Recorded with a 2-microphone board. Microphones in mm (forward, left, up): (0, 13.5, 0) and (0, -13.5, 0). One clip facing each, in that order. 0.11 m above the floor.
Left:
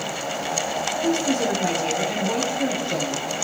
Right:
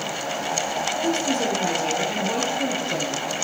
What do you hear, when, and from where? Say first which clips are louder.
1.0 s a woman speaking: left 2 dB; centre (ahead or behind), 3 m